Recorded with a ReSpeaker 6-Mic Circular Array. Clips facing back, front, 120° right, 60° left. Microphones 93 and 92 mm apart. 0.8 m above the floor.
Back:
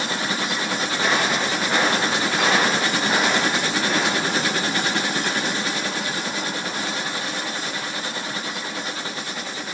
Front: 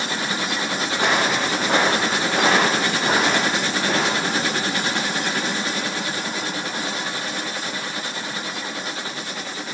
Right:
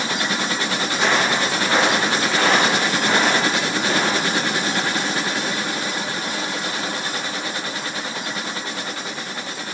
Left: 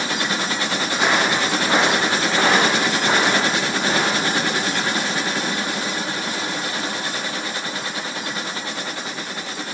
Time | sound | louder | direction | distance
0.9 | footsteps | front 2 dB, even | 15° right | 2.5 m